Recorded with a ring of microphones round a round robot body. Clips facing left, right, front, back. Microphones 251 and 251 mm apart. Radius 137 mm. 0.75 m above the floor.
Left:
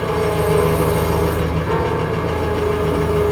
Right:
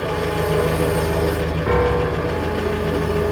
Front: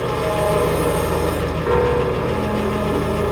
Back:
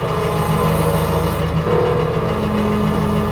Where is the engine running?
135° left, 1.5 m.